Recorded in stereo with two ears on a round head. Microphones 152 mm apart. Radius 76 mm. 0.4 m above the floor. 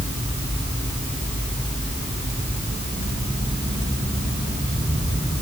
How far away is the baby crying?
I don't hear a baby crying.